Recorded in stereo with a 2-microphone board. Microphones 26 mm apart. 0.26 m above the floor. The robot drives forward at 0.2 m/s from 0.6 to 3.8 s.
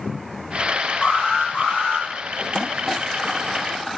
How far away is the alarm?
About 10 m.